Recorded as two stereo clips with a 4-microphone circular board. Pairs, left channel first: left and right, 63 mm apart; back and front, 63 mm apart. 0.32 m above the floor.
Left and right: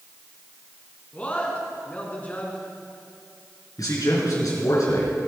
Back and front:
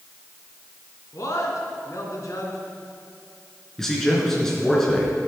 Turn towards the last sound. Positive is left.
turn(degrees=100)